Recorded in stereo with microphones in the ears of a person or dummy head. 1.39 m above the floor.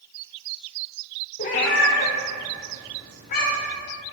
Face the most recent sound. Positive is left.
turn(degrees=65)  # may be behind; listen again after turning